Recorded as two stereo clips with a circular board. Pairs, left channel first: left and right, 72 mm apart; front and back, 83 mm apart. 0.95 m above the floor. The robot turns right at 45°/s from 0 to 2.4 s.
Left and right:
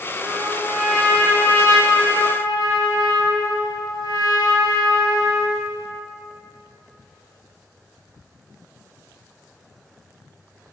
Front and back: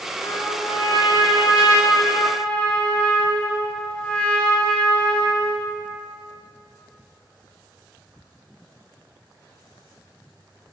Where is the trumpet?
25° right, 2 m; by 5.7 s 75° left, 2 m.